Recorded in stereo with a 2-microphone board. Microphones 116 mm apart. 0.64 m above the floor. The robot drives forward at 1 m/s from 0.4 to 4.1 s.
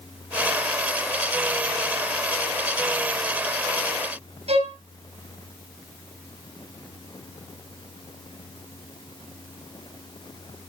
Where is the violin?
65° right (ahead or behind), 5 m.